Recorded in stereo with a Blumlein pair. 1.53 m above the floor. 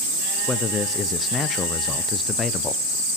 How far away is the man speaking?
About 0.8 m.